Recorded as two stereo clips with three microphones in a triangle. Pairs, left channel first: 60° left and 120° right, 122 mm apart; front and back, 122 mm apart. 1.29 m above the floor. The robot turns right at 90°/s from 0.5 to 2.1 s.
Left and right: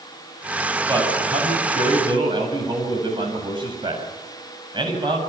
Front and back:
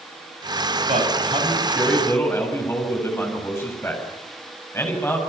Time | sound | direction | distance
0.9 | a man speaking | straight behind | 7.5 m